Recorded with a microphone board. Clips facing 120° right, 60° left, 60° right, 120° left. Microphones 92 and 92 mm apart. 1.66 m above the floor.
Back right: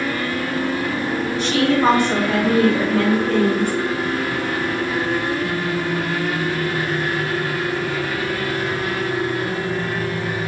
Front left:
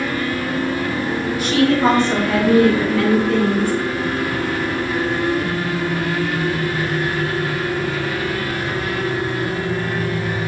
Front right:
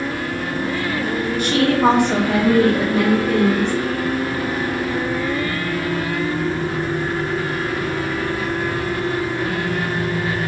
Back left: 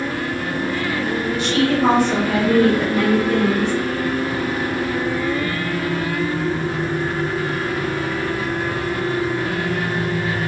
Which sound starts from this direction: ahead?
A woman speaking, at 1.4 s.